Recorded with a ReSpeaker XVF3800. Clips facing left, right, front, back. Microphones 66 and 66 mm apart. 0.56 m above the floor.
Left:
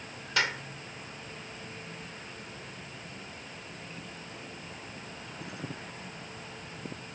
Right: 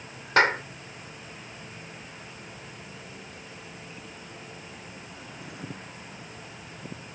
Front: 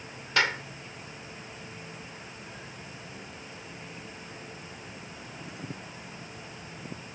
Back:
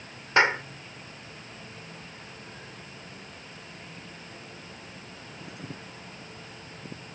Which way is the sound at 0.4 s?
125° right.